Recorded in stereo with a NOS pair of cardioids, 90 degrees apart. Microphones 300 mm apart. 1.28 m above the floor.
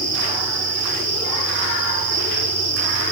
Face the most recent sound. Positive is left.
turn(degrees=-60)